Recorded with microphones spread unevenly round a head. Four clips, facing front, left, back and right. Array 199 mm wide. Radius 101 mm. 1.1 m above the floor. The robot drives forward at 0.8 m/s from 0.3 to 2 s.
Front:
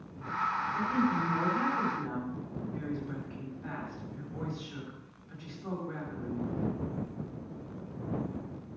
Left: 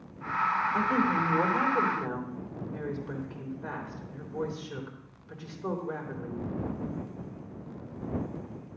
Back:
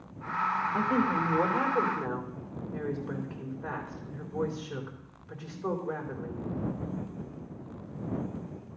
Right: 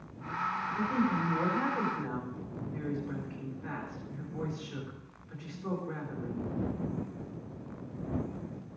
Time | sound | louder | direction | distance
0.7 | a woman speaking | left 1 dB, back 2 dB | 130° left | 2.5 m